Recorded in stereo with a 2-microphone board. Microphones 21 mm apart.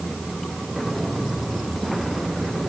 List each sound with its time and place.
Only background noise.